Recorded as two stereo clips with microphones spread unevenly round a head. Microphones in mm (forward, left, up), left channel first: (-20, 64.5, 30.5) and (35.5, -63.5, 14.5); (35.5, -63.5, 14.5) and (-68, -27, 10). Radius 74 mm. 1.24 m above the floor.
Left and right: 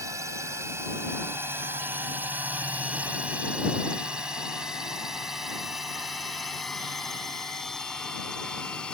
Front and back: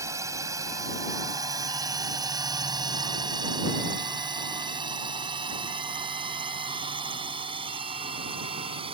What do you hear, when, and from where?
0.0 s a drone: 135° right; by 8.9 s 160° right